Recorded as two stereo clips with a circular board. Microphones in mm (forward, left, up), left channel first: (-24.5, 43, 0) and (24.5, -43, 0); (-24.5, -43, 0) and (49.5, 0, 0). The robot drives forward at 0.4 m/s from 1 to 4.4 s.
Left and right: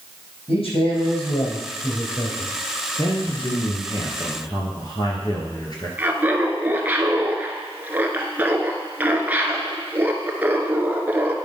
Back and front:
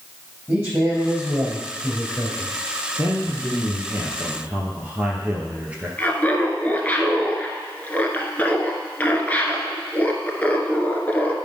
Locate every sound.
0.5 s a man speaking: 100° left, 4.5 m; by 2.5 s 110° left, 4.5 m
3.0 s a man speaking: 80° left, 2.5 m; by 5.9 s 100° left, 2.5 m
6.0 s laughter: 105° right, 1.2 m